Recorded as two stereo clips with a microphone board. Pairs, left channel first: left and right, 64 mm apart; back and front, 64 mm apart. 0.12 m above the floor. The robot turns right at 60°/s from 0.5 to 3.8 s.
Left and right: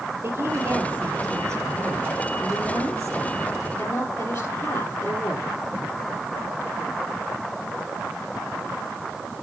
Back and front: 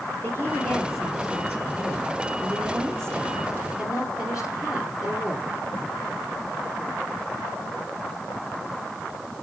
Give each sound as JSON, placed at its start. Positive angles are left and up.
{"t": 0.2, "sound": "a woman speaking", "azimuth_deg": -125, "distance_m": 3.0}